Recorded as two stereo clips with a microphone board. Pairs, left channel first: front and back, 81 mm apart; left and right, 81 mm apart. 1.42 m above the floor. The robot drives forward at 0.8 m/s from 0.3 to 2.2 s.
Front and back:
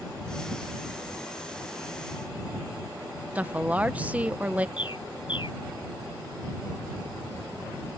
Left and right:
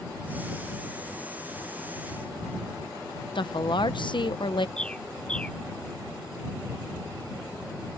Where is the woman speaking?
105° left.